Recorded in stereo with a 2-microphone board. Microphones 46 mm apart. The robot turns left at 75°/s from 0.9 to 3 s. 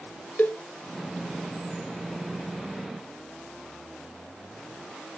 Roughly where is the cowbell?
Left.